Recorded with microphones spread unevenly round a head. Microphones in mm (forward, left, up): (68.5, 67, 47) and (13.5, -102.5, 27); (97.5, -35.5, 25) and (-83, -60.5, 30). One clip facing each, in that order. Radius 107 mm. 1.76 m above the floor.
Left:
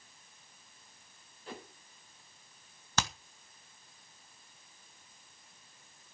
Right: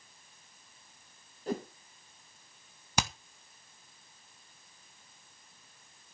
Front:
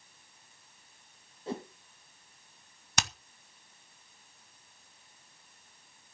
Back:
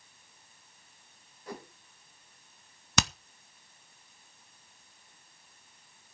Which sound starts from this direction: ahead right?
A whoosh, at 1.5 s.